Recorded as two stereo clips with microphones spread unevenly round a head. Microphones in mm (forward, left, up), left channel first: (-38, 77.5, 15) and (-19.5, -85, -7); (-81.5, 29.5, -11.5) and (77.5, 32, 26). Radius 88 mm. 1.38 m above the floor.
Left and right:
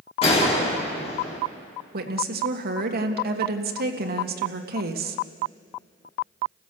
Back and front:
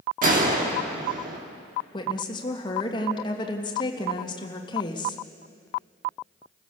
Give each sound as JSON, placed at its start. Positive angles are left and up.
{"t": 0.2, "sound": "a gunshot", "azimuth_deg": 35, "distance_m": 3.0}
{"t": 1.9, "sound": "a woman speaking", "azimuth_deg": -115, "distance_m": 1.8}